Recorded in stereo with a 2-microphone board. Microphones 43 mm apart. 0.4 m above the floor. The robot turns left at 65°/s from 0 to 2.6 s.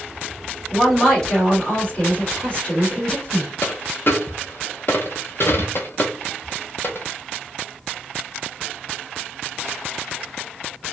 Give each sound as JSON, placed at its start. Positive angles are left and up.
{"t": 0.7, "sound": "a woman speaking", "azimuth_deg": -175, "distance_m": 1.6}
{"t": 3.6, "sound": "a dropped coin", "side_deg": 55, "distance_m": 0.6}